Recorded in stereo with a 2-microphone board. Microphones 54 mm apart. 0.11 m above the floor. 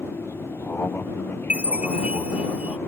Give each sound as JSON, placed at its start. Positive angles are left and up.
{"t": 0.0, "sound": "an aircraft", "side_deg": 45}
{"t": 1.5, "sound": "a chime", "side_deg": -20}